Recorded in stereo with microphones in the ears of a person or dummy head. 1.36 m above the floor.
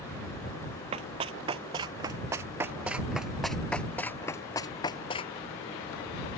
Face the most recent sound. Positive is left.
turn(degrees=30)  # may be behind; listen again after turning